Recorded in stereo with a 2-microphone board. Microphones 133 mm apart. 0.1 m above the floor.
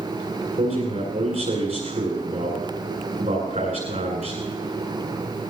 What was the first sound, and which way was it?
A man speaking, 65° right (ahead or behind).